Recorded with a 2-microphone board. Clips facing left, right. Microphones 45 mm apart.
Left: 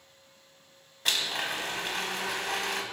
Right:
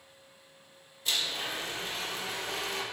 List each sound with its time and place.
1.1 s a blender: 75° left (ahead or behind), 0.8 m